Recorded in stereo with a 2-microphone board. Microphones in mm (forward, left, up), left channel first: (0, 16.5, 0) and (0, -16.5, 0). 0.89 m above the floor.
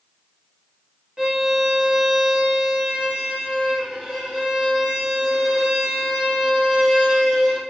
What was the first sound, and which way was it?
A violin, 20° right (ahead or behind).